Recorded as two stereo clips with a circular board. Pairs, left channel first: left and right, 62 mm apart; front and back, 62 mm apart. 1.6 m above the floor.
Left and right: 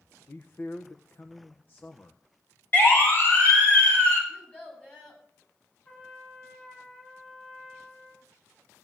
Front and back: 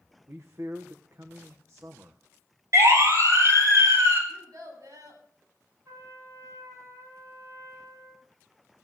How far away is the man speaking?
About 1.1 m.